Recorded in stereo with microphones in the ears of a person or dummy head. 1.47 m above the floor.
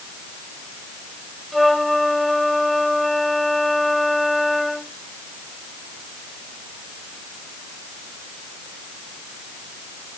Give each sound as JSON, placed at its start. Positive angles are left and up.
{"t": 1.5, "sound": "a flute", "side_deg": 0}